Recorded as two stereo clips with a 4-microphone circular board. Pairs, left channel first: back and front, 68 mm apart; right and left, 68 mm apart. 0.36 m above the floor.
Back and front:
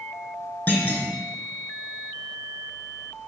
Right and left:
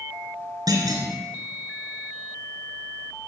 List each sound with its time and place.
0.7 s a clunk: 120° left, 3.5 m